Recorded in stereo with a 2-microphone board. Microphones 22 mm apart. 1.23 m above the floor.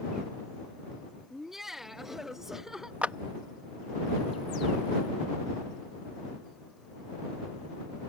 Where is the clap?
70° right (ahead or behind).